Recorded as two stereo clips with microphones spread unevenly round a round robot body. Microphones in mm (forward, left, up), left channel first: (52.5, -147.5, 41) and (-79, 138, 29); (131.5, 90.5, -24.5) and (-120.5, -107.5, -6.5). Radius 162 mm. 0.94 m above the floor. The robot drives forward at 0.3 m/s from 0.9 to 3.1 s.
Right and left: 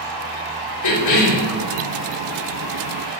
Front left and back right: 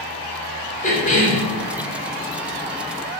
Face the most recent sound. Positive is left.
turn(degrees=-40)